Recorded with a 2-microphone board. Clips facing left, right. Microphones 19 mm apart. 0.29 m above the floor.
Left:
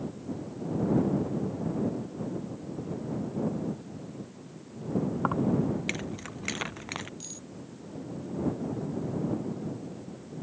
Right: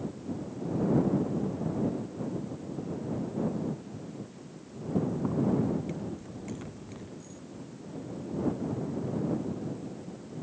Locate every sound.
5.2 s keys jangling: 80° left; by 7.1 s 75° left (ahead or behind)
7.2 s cutlery clinking: 70° left (ahead or behind)